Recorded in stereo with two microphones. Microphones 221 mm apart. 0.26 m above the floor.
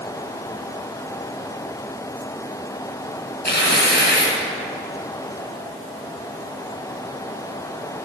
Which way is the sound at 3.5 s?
50° left (ahead or behind).